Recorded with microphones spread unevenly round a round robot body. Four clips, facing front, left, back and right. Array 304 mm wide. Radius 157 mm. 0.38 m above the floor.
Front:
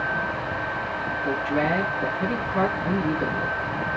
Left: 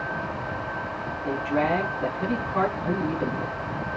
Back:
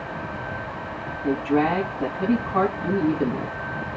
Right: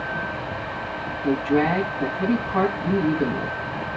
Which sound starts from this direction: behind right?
A woman speaking, at 1.2 s.